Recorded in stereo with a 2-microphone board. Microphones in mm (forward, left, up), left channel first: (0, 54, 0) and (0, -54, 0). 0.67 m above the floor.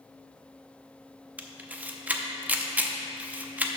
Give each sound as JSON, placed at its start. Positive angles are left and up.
{"t": 1.4, "sound": "a camera shutter", "side_deg": -15, "distance_m": 0.5}